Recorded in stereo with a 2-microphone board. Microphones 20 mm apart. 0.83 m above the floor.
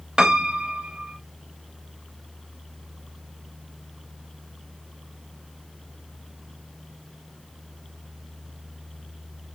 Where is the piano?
45° right (ahead or behind), 0.6 m.